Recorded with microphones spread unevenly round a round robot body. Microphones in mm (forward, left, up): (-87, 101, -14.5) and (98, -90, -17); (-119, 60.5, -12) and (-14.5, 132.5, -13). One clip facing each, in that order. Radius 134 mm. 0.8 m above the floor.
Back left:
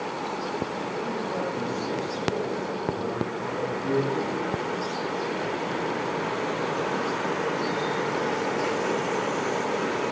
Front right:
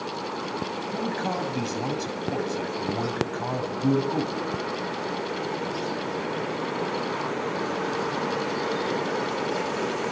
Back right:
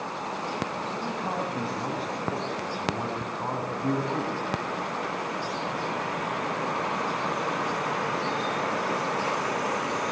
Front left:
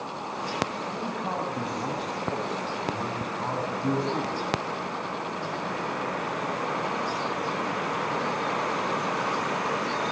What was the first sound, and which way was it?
A man speaking, 55° right.